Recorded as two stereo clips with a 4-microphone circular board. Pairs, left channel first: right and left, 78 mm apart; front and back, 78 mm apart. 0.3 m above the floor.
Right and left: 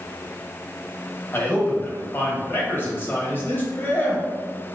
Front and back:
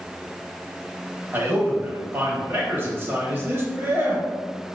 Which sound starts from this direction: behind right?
A man speaking, at 1.3 s.